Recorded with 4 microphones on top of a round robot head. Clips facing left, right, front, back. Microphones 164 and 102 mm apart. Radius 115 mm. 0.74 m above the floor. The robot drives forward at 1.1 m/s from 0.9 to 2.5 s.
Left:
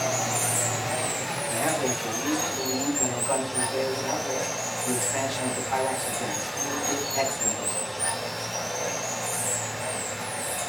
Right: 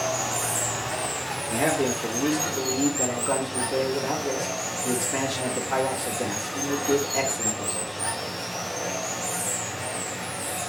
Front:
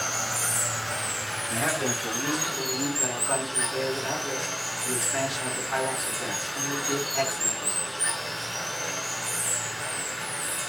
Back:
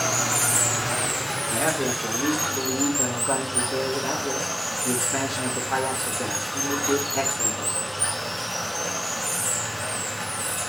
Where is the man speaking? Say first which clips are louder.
Right 4 dB, back 3 dB; 115° right, 3 m; by 7.9 s 130° right, 3.5 m.